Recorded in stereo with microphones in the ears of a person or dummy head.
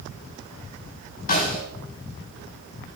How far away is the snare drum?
About 4 m.